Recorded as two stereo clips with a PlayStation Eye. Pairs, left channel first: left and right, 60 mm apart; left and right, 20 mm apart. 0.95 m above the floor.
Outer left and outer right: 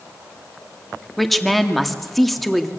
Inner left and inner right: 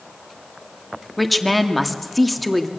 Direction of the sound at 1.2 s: Centre (ahead or behind).